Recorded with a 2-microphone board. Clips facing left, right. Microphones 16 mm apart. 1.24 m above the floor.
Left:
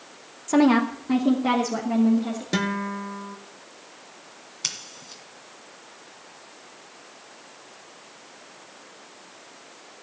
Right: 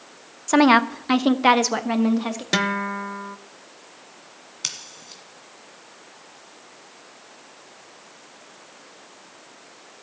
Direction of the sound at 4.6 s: 5° right (ahead or behind).